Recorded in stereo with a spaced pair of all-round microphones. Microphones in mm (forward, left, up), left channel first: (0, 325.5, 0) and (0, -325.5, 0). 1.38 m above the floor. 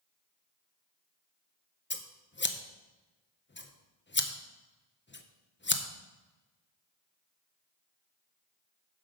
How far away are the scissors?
About 0.6 m.